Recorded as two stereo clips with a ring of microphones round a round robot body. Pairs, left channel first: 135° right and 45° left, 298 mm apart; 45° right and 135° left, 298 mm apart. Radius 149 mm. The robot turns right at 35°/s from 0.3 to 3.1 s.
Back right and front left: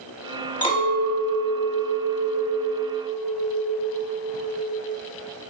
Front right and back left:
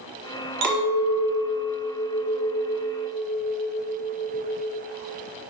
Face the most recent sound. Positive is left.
turn(degrees=-120)